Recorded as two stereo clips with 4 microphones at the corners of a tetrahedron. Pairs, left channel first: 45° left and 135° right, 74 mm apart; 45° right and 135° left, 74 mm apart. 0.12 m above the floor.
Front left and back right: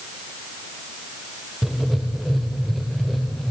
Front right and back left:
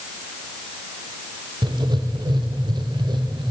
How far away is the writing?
About 3.5 m.